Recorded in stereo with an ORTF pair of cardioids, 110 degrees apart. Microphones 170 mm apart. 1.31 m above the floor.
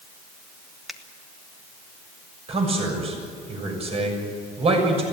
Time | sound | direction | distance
0.9 | a finger snap | straight ahead | 1.7 m
2.5 | a man speaking | 35° right | 6.5 m